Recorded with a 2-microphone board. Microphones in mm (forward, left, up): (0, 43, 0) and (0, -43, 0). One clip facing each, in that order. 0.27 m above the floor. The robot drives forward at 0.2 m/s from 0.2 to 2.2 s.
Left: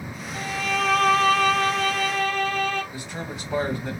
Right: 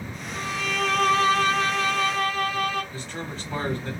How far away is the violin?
About 2.5 m.